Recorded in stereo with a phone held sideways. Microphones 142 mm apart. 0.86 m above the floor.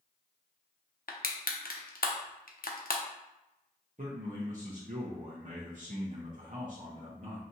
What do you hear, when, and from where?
1.1 s crushing: 75° left (ahead or behind), 0.6 m
4.0 s a man speaking: 60° right (ahead or behind), 0.9 m